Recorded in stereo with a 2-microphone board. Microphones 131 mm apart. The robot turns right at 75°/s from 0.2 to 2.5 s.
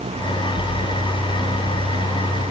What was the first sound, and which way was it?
Only background noise.